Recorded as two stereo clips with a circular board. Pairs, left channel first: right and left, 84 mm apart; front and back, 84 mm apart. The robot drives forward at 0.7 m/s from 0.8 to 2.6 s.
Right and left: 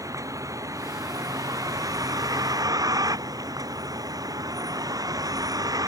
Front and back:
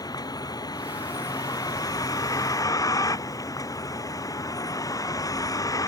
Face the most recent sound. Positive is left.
turn(degrees=45)